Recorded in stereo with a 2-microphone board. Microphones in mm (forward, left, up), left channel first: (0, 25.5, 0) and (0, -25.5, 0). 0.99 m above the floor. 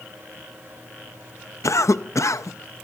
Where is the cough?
75° left (ahead or behind), 0.6 m.